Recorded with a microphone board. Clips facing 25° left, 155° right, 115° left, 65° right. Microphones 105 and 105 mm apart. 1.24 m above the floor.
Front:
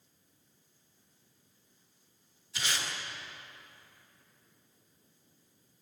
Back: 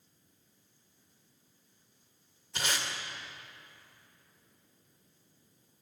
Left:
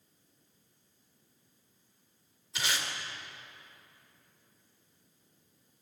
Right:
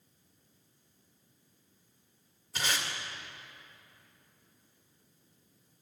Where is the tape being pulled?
115° right, 2.0 m.